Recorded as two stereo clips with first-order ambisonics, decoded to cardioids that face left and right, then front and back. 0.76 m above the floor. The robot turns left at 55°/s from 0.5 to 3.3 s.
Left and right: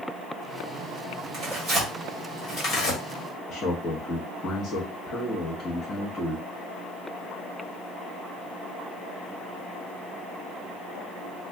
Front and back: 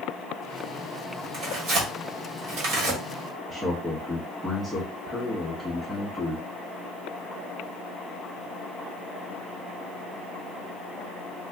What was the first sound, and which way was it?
Tearing paper, 125° right.